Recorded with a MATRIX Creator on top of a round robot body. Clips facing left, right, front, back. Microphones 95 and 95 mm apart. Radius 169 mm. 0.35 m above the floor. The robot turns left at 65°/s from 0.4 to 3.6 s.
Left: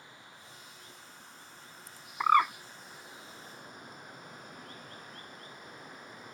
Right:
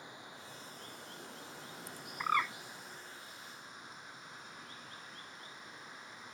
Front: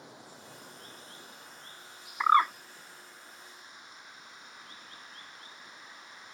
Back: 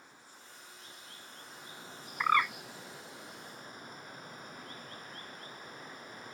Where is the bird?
70° left; by 2.5 s 50° left.